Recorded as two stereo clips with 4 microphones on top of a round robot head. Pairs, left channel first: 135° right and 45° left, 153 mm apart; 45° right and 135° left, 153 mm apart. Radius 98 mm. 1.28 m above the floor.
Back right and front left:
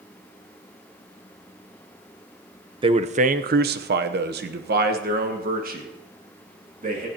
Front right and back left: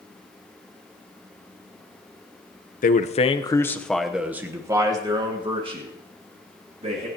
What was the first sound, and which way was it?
A man speaking, 15° right.